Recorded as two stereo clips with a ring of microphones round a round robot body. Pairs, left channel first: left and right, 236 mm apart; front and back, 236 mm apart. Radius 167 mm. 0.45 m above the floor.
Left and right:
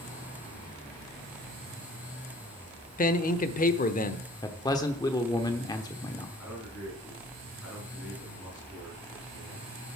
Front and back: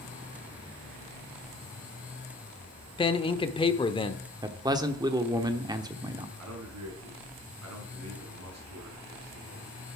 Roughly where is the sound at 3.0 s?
Ahead left.